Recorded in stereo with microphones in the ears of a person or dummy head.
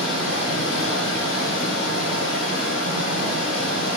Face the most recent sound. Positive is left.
turn(degrees=85)